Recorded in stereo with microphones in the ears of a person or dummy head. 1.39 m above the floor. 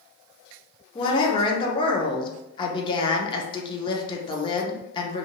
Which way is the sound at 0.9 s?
30° left (ahead or behind).